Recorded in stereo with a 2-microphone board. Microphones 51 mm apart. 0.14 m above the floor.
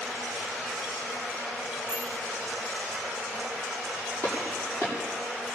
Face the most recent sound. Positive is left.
turn(degrees=60)  # may be behind; listen again after turning